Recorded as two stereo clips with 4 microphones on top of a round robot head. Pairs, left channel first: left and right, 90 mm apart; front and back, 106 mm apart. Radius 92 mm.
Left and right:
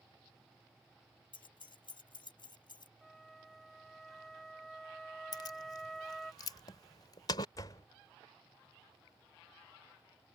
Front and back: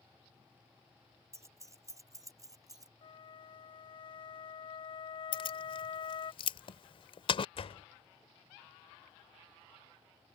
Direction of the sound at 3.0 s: 5° left.